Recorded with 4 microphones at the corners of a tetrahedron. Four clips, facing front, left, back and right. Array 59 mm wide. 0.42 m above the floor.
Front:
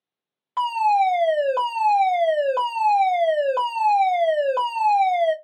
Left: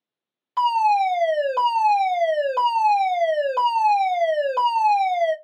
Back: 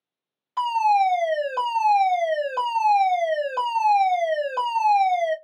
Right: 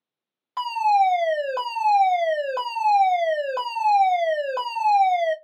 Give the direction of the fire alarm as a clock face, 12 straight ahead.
12 o'clock.